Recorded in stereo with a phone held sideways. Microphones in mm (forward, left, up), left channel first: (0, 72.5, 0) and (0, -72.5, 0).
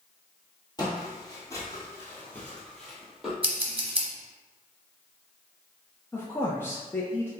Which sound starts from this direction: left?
Footsteps, at 0.8 s.